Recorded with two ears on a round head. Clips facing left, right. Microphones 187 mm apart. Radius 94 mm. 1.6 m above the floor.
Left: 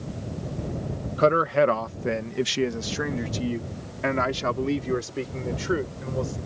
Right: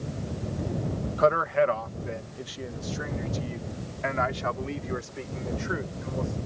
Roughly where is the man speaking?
Left.